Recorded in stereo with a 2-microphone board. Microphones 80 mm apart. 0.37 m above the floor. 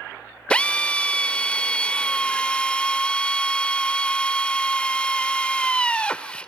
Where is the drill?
15° left (ahead or behind), 0.6 m.